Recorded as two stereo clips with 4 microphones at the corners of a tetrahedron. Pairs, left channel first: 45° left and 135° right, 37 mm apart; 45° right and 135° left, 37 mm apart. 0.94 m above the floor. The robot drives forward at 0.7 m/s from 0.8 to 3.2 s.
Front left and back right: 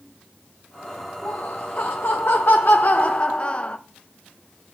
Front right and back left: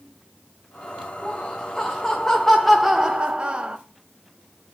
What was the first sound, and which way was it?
Laughter, 15° left.